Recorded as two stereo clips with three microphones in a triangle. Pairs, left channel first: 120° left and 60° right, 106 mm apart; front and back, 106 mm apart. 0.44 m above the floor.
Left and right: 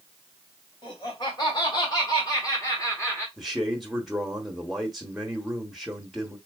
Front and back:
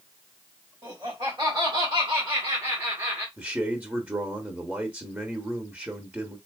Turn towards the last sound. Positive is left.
turn(degrees=-150)